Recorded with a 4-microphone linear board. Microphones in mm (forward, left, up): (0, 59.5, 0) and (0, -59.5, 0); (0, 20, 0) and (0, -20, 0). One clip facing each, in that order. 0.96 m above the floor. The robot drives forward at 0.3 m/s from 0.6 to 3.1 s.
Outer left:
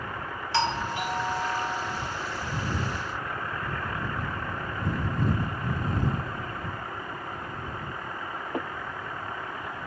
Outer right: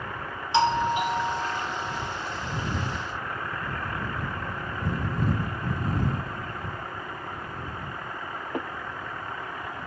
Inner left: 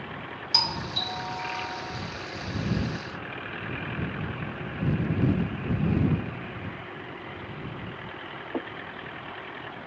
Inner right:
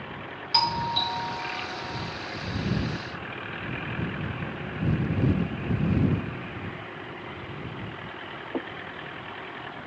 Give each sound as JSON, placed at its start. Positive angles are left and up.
{"t": 0.5, "sound": "a doorbell", "side_deg": -20, "distance_m": 0.7}